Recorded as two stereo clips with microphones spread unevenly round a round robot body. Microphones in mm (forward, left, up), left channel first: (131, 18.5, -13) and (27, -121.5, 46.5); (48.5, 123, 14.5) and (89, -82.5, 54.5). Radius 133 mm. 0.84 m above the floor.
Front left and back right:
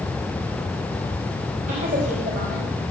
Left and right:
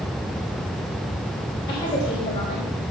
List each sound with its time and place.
1.7 s a woman speaking: 170° left, 4 m